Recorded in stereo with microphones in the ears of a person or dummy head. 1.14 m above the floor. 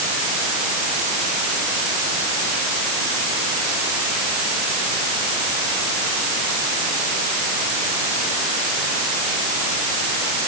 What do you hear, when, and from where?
Only background noise.